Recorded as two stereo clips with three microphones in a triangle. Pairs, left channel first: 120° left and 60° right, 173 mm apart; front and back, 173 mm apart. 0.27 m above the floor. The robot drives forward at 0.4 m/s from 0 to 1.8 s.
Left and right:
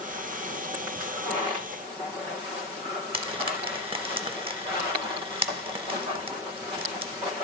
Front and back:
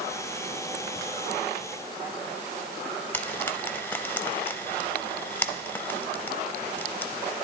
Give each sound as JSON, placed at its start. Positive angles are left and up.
{"t": 3.1, "sound": "frying", "azimuth_deg": -65, "distance_m": 0.5}